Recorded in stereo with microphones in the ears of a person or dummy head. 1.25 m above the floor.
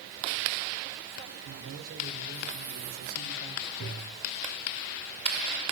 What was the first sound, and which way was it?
A man speaking, 85° right.